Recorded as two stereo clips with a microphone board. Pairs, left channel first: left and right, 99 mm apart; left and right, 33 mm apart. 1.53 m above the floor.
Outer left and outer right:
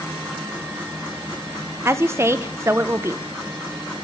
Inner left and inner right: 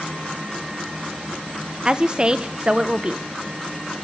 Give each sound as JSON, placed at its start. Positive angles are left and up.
{"t": 1.9, "sound": "a woman speaking", "side_deg": -25, "distance_m": 0.7}